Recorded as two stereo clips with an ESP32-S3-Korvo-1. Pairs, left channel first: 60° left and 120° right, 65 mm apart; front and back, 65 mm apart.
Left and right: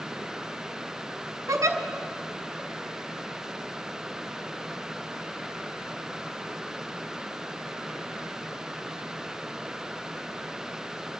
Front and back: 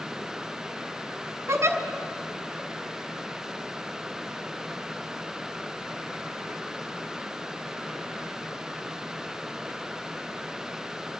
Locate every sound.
1.5 s a giggle: 145° right, 1.2 m